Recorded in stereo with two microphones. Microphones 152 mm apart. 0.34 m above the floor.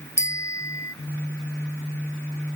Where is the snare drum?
No snare drum in this recording.